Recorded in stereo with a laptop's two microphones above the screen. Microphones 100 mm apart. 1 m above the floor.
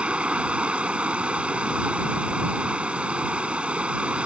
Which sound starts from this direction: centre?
Running water, at 0.0 s.